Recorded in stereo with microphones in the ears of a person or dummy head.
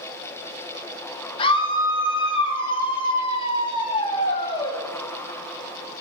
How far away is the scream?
About 3 m.